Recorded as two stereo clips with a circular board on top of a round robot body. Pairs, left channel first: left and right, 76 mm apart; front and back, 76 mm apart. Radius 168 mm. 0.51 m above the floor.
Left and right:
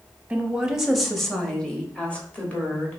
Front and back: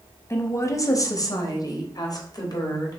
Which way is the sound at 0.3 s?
25° right.